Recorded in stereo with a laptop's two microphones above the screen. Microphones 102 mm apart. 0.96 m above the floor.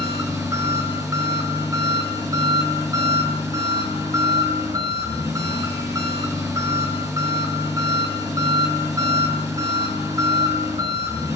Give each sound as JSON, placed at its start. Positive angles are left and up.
{"t": 0.0, "sound": "an engine running", "side_deg": -30, "distance_m": 6.5}